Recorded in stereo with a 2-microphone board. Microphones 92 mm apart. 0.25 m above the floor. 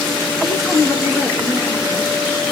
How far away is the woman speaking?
About 3.5 m.